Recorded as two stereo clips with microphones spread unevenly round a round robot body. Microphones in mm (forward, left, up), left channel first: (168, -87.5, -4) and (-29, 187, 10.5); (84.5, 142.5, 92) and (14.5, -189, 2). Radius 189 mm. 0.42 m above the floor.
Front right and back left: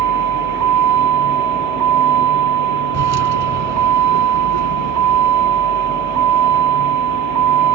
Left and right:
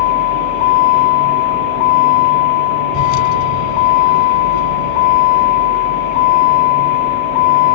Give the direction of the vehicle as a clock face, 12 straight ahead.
9 o'clock.